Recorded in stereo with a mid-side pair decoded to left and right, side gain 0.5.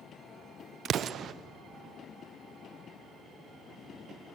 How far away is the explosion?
About 0.6 m.